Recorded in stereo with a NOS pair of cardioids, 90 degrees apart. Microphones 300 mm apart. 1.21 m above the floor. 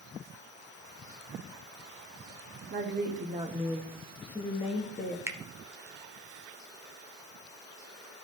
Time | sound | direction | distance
2.7 | a woman speaking | 35° right | 1.8 m
5.3 | a finger snap | 10° right | 0.9 m